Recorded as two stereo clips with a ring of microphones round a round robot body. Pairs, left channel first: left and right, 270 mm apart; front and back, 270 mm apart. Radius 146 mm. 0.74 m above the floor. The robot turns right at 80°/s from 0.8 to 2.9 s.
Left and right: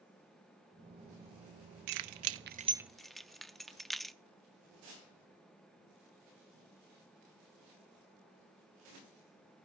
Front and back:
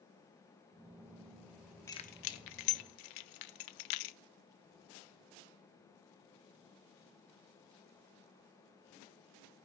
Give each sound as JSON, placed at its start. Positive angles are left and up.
{"t": 1.9, "sound": "keys jangling", "azimuth_deg": -80, "distance_m": 0.6}